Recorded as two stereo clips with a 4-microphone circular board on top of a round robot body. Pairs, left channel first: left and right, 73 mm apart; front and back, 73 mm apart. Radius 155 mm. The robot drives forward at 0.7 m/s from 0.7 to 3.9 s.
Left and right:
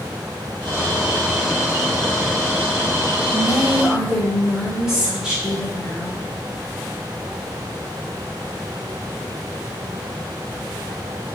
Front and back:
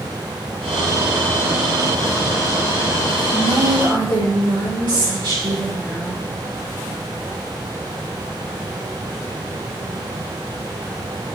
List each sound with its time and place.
3.3 s a woman speaking: 170° right, 4 m